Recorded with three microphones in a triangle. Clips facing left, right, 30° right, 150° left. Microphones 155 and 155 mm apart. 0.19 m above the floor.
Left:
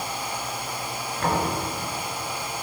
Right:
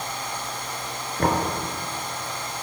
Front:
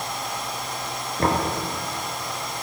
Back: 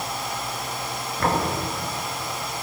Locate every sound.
1.2 s knocking: 75° right, 2.5 m